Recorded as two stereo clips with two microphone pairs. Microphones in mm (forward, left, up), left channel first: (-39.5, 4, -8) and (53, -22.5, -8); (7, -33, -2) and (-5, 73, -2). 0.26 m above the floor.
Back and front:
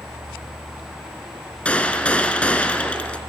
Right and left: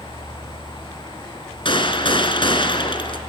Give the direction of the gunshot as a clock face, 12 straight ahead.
4 o'clock.